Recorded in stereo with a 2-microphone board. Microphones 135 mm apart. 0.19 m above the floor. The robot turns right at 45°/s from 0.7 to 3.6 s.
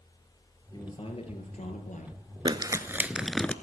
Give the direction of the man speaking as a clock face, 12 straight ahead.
11 o'clock.